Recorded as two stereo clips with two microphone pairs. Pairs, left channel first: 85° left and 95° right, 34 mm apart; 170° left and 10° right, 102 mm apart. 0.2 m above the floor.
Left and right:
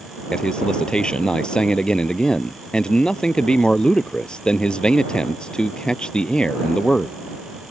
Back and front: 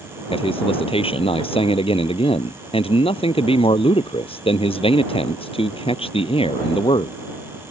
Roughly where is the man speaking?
Behind left.